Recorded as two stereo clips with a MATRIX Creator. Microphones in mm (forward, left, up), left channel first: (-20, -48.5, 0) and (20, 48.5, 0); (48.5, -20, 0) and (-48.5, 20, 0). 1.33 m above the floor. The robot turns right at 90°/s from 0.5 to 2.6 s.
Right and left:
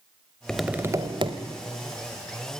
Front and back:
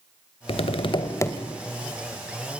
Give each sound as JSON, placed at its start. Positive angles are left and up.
{"t": 0.5, "sound": "tapping", "azimuth_deg": -30, "distance_m": 2.0}